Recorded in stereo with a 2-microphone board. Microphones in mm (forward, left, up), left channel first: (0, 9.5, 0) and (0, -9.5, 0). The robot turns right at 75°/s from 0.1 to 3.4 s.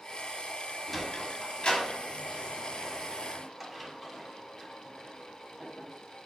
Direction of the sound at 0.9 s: Centre (ahead or behind).